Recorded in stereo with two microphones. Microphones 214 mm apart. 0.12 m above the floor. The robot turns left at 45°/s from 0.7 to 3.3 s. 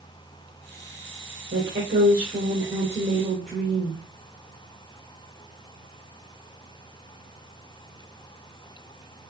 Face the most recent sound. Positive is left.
turn(degrees=175)